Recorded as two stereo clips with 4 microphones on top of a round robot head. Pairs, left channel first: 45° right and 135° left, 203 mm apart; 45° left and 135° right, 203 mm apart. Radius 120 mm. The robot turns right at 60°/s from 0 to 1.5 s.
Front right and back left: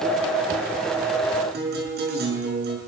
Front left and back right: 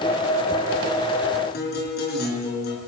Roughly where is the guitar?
Left.